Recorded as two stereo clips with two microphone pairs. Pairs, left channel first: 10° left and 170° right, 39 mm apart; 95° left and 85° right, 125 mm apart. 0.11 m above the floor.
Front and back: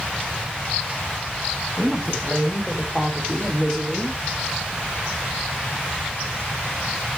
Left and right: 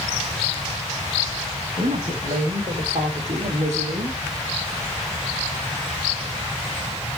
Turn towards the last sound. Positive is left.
turn(degrees=-95)